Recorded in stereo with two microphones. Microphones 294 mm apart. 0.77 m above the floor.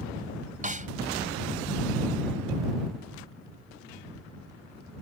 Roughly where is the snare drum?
Right.